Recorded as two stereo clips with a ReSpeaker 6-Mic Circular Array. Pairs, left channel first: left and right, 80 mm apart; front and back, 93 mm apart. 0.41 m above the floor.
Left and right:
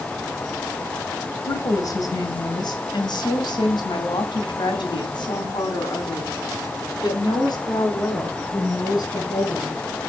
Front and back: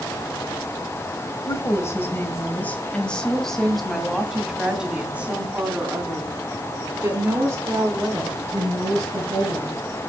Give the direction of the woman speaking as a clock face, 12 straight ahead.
10 o'clock.